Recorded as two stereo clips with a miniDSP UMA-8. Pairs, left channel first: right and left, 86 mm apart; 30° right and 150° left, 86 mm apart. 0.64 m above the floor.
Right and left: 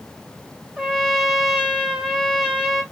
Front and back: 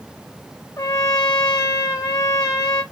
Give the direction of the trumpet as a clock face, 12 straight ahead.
12 o'clock.